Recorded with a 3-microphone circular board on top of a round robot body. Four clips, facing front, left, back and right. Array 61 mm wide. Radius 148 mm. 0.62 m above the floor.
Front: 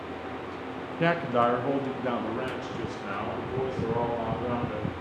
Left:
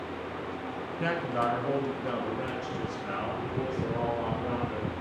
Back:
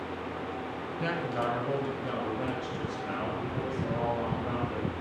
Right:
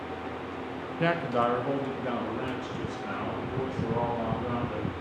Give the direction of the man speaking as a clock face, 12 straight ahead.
1 o'clock.